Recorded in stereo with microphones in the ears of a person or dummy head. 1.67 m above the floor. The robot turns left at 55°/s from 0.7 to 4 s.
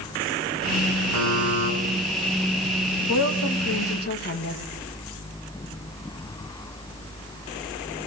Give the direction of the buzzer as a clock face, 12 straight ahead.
3 o'clock.